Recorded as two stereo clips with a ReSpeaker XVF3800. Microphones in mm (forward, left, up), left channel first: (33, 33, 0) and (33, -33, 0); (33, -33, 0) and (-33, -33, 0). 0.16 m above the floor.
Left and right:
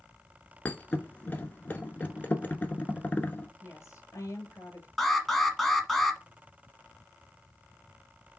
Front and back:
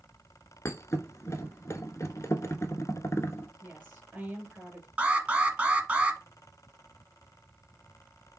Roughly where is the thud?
Ahead left.